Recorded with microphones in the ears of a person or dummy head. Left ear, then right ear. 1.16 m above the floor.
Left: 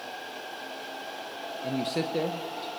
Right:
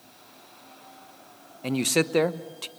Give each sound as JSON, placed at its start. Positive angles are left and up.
{"t": 1.6, "sound": "a man speaking", "side_deg": -50, "distance_m": 0.9}